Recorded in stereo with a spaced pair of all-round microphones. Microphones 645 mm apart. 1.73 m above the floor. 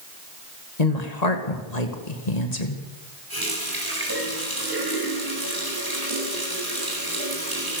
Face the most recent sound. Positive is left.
turn(degrees=-35)  # may be behind; listen again after turning